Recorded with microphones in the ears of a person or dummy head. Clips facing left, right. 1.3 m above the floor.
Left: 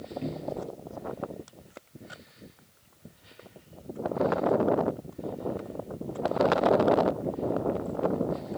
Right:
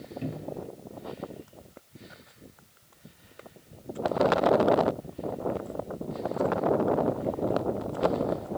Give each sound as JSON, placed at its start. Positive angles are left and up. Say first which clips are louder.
{"t": 0.2, "sound": "a cupboard door", "louder": "left 1 dB", "side_deg": -10, "distance_m": 1.1}